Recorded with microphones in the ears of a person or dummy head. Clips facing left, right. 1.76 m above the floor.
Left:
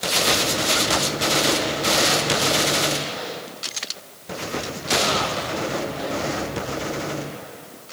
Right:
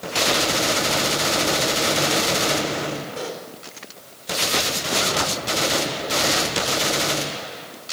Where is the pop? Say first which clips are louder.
Right 1 dB; 40° right (ahead or behind), 4.5 m.